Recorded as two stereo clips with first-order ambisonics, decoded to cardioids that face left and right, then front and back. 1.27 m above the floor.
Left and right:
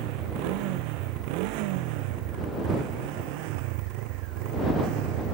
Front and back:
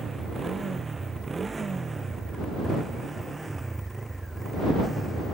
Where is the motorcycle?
105° right; by 5.3 s 95° right.